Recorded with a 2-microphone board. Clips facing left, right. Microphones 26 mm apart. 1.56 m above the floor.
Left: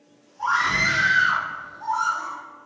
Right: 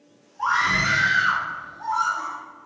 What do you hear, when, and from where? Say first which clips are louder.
0.4 s a scream: even; 75° right (ahead or behind), 1.7 m; by 2.4 s 45° right (ahead or behind), 0.8 m